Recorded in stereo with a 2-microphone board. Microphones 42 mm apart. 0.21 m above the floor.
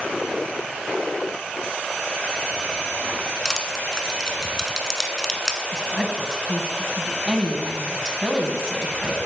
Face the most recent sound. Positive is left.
turn(degrees=-15)  # may be behind; listen again after turning